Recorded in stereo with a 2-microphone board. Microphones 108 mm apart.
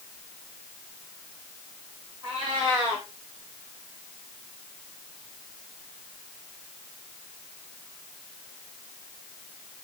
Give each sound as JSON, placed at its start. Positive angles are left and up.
{"t": 2.2, "sound": "a cat meowing", "side_deg": -45, "distance_m": 8.0}